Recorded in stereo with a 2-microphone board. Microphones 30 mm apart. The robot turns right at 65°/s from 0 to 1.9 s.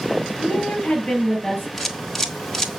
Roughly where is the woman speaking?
Left.